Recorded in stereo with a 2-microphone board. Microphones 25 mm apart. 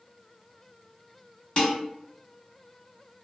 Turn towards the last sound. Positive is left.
turn(degrees=35)  # may be behind; listen again after turning